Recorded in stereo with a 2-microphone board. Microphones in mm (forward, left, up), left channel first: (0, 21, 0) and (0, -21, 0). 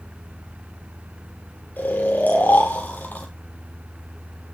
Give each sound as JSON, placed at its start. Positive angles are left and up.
{"t": 1.8, "sound": "snoring", "side_deg": 45, "distance_m": 6.5}